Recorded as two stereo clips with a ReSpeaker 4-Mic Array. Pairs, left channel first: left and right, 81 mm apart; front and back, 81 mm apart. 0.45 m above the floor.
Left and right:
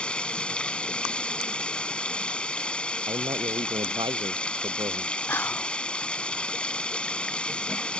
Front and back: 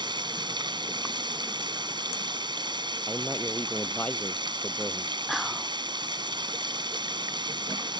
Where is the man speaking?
75° right.